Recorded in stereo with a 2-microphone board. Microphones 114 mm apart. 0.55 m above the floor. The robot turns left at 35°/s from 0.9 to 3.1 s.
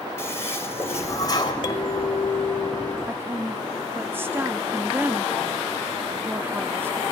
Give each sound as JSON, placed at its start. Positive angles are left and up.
{"t": 0.2, "sound": "a toilet flushing", "side_deg": 20, "distance_m": 2.5}
{"t": 1.6, "sound": "a clink", "azimuth_deg": 140, "distance_m": 1.3}
{"t": 3.1, "sound": "a woman speaking", "side_deg": -20, "distance_m": 0.7}